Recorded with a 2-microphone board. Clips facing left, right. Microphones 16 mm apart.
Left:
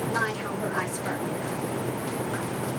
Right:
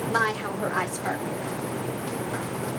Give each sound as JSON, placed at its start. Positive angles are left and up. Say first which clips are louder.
{"t": 0.1, "sound": "a woman speaking", "louder": "right 6 dB", "side_deg": -55, "distance_m": 1.5}